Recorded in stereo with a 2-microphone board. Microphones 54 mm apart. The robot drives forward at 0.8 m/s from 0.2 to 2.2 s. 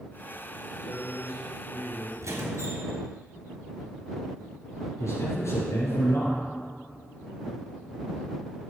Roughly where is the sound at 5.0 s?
Left.